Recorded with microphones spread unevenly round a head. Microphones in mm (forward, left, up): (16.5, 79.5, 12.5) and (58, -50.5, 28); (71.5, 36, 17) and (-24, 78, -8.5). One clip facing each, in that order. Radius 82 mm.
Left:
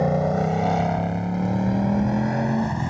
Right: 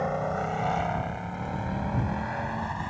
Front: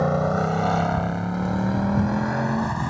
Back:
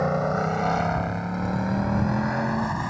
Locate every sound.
0.0 s a motorcycle: 50° left; by 2.9 s 60° left